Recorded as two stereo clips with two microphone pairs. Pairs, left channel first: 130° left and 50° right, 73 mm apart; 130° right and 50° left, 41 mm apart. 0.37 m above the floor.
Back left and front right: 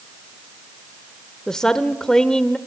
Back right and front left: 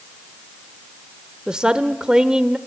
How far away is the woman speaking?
About 0.8 m.